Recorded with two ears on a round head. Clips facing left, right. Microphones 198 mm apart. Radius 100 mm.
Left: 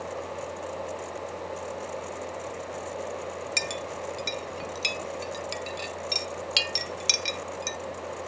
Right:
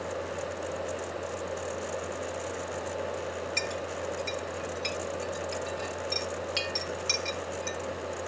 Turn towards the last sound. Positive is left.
turn(degrees=45)  # may be behind; listen again after turning